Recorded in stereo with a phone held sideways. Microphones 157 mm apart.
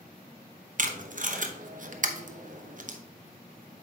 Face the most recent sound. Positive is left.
turn(degrees=-55)  # may be behind; listen again after turning